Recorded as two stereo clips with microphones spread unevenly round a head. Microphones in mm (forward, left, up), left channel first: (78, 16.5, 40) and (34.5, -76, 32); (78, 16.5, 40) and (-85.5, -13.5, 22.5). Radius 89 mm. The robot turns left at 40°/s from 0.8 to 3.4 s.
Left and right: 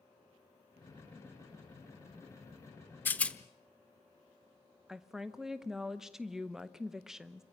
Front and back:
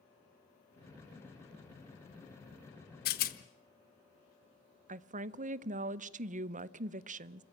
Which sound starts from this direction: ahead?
A rattle, at 3.0 s.